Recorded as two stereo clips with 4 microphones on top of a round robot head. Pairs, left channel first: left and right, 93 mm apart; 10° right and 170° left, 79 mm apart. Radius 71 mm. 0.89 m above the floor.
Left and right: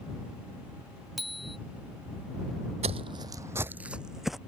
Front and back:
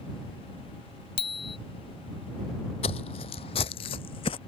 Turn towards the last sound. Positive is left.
turn(degrees=0)